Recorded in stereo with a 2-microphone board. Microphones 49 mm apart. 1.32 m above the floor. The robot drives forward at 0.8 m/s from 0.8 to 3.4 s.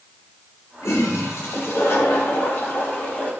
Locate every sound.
0.8 s a toilet flushing: 80° left, 2.5 m; by 3.3 s 45° left (ahead or behind), 3 m